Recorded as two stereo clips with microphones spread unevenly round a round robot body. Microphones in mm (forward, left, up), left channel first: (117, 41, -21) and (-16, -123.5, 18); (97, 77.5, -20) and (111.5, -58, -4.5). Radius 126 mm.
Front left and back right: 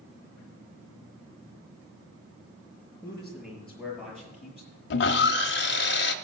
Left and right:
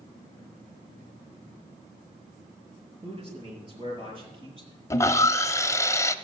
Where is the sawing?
30° left, 0.7 m.